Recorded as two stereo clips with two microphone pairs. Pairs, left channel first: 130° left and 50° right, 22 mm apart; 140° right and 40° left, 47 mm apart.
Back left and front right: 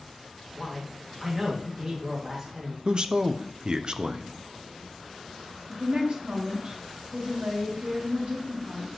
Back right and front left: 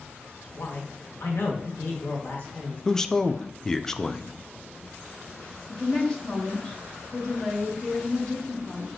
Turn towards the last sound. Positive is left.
turn(degrees=-75)